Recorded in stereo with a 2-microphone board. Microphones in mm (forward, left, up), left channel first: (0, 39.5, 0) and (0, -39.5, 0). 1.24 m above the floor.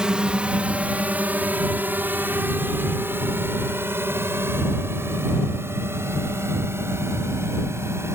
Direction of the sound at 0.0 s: 10° right (ahead or behind).